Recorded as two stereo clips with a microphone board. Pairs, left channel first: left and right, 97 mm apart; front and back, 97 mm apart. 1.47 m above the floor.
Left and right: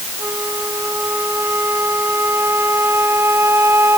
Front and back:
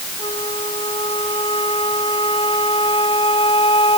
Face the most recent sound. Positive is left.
turn(degrees=-25)